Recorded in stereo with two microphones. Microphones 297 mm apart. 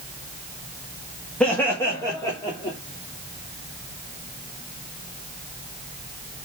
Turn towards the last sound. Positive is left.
turn(degrees=15)  # may be behind; listen again after turning